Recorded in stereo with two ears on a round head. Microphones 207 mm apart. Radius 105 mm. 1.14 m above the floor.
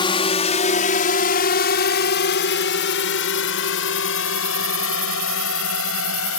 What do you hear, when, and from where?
0.0 s a drone: 20° left (ahead or behind); by 6.4 s 65° left (ahead or behind)